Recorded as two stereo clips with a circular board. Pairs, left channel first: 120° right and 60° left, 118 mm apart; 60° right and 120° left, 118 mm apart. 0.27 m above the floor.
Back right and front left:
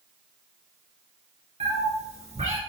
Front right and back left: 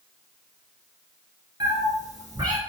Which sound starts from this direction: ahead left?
A cat meowing, at 1.6 s.